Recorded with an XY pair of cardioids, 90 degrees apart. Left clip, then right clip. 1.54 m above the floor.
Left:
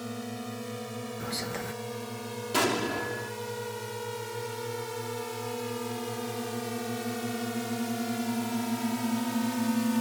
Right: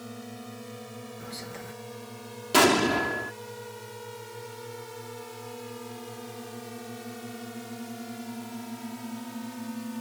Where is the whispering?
55° left.